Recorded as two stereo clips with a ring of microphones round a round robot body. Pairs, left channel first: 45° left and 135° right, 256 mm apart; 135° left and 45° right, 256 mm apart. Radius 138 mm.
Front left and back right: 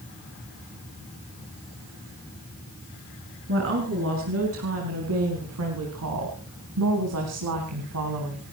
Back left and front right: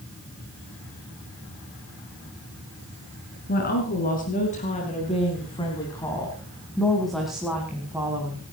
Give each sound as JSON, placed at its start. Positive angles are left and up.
{"t": 3.5, "sound": "a woman speaking", "azimuth_deg": -175, "distance_m": 4.5}